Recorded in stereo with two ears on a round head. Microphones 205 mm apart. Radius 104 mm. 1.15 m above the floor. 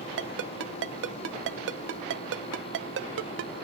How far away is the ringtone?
About 0.7 m.